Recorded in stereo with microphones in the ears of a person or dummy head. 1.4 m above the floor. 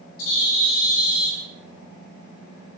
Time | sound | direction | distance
0.2 | a bird | 75° left (ahead or behind) | 5.5 m